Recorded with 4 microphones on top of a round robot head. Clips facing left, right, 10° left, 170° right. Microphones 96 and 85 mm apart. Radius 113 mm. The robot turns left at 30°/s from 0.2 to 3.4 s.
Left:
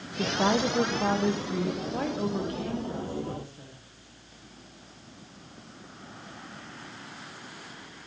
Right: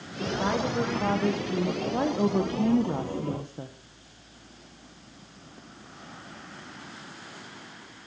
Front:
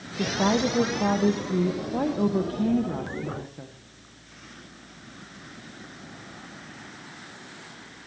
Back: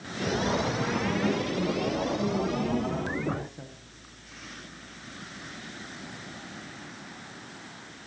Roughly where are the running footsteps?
No running footsteps in this recording.